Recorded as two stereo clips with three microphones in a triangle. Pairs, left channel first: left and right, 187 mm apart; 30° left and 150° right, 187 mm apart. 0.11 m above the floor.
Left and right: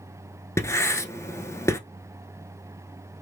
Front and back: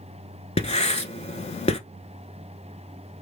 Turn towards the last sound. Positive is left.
turn(degrees=30)